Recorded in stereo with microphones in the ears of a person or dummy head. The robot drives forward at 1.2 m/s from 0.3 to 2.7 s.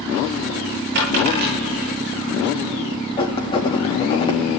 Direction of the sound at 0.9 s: 60° right (ahead or behind).